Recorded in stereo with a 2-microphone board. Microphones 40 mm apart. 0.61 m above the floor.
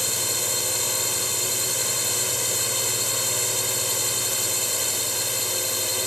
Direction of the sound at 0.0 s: Centre (ahead or behind).